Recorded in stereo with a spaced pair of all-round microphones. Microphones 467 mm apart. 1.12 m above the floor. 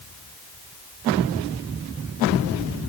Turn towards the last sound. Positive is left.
No sound to turn to.